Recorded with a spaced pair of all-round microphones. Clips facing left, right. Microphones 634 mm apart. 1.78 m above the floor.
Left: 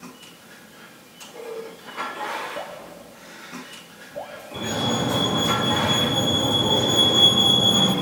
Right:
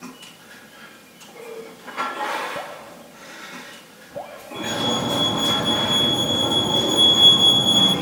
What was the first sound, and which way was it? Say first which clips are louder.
Dripping: even; 55° right (ahead or behind).